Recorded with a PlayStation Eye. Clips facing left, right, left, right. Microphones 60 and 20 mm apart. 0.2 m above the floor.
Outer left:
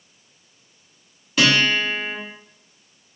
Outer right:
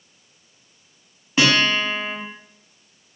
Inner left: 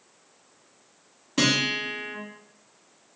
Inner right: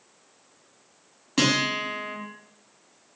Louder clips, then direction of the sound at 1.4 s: Even, even; 30° right (ahead or behind).